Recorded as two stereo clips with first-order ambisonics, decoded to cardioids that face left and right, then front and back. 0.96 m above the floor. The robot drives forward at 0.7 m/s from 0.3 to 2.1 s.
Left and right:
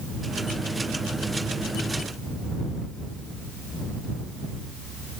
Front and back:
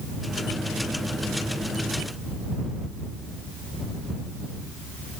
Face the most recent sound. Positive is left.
No sound to turn to.